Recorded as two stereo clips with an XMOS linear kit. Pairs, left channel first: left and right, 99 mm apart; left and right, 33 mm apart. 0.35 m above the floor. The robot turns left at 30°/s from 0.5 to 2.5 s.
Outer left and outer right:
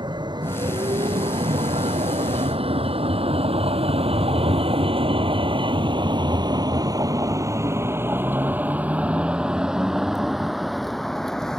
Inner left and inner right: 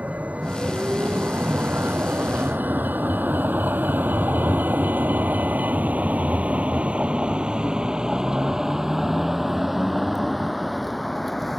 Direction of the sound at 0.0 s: 50° right (ahead or behind).